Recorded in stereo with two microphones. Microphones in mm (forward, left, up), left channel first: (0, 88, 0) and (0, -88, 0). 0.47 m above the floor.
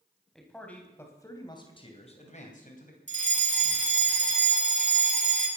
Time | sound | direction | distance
0.3 | a man speaking | 5° left (ahead or behind) | 3.5 m
3.1 | a fire alarm | 45° right (ahead or behind) | 3 m